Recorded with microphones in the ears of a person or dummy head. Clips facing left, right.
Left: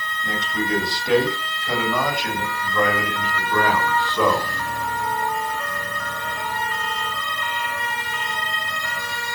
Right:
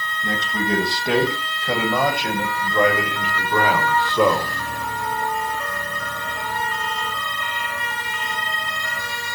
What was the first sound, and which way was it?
A man speaking, 20° right (ahead or behind).